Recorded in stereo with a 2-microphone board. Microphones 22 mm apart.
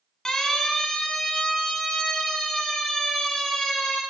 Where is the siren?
20° left (ahead or behind), 6.5 m; by 4.0 s 5° left (ahead or behind), 10.5 m.